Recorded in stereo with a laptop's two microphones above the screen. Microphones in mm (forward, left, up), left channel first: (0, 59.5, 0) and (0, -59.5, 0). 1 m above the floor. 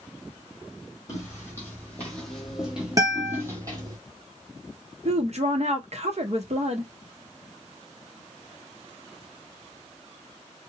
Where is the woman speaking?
60° right (ahead or behind), 0.7 m.